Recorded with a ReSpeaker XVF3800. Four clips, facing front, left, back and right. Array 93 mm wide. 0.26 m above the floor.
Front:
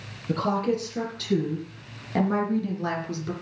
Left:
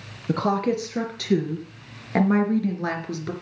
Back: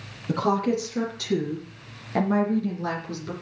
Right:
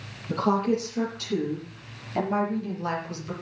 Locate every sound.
0.3 s a woman speaking: 105° left, 4.5 m; by 3.3 s 85° left, 4 m